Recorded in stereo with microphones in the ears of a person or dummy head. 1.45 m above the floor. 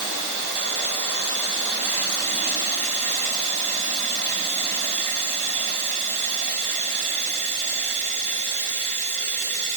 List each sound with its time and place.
0.0 s running water: 50° right (ahead or behind), 1.3 m